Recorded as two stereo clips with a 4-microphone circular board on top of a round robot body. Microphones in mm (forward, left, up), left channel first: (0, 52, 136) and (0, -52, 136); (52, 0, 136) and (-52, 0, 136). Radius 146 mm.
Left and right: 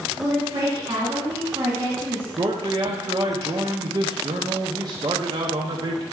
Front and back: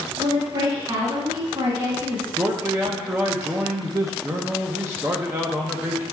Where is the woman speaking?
140° right, 2.5 m.